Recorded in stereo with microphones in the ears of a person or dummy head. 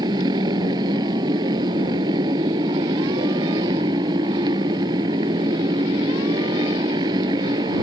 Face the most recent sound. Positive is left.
turn(degrees=-20)  # may be behind; listen again after turning